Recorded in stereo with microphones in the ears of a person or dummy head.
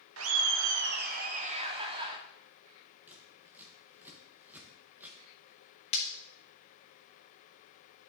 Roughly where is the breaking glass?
Left.